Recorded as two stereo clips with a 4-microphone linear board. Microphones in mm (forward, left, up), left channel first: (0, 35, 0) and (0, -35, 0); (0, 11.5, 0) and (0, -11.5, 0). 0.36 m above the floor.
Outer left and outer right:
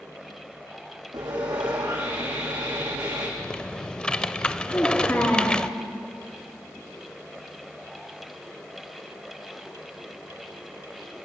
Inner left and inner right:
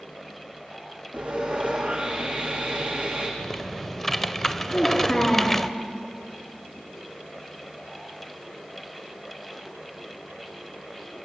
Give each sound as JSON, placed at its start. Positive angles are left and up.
{"t": 1.1, "sound": "sawing", "side_deg": -85, "distance_m": 8.0}
{"t": 3.4, "sound": "typing on a keyboard", "side_deg": 15, "distance_m": 0.6}
{"t": 4.7, "sound": "a child speaking", "side_deg": 30, "distance_m": 4.5}